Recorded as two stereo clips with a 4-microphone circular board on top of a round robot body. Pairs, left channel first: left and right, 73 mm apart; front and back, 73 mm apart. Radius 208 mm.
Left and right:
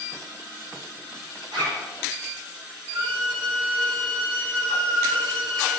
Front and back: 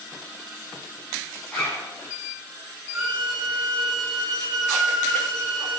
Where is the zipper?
70° right, 7 m.